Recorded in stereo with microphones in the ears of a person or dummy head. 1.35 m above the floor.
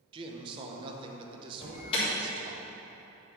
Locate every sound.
0.1 s a man speaking: 30° right (ahead or behind), 1.0 m
1.6 s an alarm: 30° left (ahead or behind), 3 m